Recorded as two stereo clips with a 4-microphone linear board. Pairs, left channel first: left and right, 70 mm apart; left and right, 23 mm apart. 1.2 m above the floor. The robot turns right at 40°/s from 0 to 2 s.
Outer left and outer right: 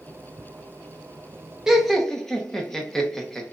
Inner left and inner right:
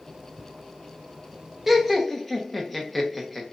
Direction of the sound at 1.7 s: 10° right (ahead or behind).